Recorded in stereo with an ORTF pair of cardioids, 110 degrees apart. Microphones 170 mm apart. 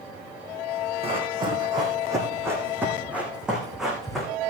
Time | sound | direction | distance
1.0 | running footsteps | 35° right | 4 m